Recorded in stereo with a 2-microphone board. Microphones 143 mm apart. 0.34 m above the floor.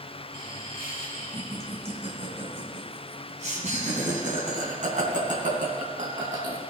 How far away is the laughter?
About 4.5 m.